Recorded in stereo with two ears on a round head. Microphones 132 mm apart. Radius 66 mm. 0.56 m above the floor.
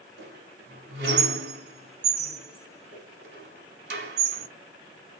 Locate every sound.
0.2 s a squeak: 80° right, 1.9 m